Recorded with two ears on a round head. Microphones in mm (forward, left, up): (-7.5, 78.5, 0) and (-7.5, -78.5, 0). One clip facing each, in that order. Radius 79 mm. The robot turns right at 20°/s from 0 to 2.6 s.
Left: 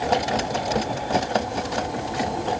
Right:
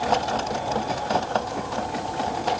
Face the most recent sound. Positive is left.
No sound to turn to.